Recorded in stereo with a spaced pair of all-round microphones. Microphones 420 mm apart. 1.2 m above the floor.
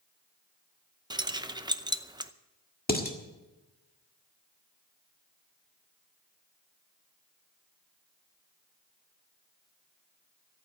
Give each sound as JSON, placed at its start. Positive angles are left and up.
{"t": 1.1, "sound": "keys jangling", "side_deg": -10, "distance_m": 0.6}
{"t": 2.9, "sound": "dishes clattering", "side_deg": 20, "distance_m": 1.7}